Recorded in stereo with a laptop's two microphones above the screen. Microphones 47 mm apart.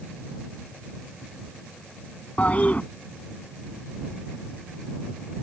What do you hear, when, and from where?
2.4 s a toilet flushing: 30° left (ahead or behind)